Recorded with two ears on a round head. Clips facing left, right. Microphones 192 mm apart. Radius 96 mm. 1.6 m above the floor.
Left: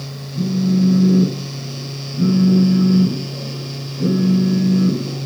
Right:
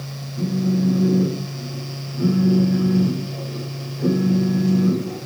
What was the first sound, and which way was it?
A phone buzzing, 50° left (ahead or behind).